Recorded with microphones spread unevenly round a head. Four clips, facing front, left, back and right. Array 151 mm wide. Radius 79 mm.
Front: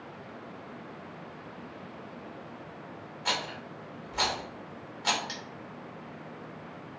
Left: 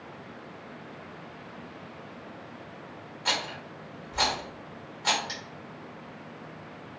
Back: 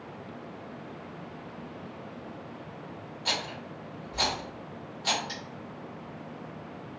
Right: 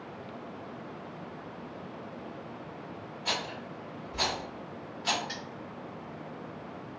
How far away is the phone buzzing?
No phone buzzing in this recording.